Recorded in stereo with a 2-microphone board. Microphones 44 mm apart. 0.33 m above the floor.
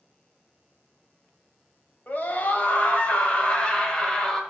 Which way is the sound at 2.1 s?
45° left (ahead or behind).